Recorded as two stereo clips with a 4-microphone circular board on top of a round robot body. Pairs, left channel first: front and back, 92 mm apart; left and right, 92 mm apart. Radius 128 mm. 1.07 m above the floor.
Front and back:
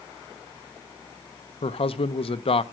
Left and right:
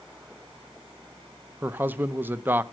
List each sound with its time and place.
1.6 s a man speaking: 20° right, 0.7 m